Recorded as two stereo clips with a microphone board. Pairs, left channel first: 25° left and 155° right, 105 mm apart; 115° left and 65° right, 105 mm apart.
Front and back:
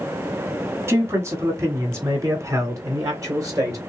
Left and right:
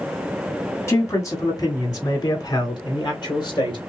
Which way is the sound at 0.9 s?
155° left.